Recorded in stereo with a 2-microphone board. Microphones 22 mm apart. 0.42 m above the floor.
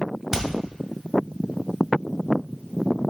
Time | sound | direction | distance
0.3 | hammering | 20° right (ahead or behind) | 1.8 m